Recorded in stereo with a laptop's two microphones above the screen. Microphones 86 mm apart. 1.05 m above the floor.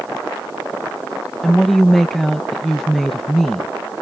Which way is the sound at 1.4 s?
5° left (ahead or behind).